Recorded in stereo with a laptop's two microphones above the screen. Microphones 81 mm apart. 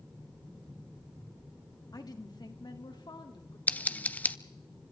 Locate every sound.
1.9 s a woman speaking: 55° left (ahead or behind), 1.9 m; by 3.6 s 70° left (ahead or behind), 3 m
3.7 s scissors: 20° left (ahead or behind), 0.6 m